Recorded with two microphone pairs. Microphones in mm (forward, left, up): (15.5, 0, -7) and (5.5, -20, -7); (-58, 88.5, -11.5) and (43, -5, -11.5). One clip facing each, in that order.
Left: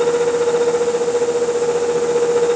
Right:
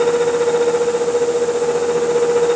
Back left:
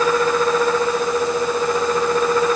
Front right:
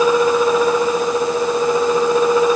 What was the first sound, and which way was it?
Only background noise.